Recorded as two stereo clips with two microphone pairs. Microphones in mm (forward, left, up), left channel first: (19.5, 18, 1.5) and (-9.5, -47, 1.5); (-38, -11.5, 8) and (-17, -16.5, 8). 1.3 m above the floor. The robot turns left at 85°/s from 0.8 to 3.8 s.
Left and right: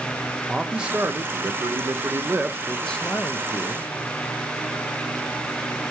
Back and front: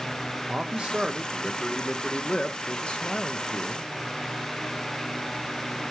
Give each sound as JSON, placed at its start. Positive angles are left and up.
{"t": 0.5, "sound": "a man speaking", "azimuth_deg": -40, "distance_m": 1.0}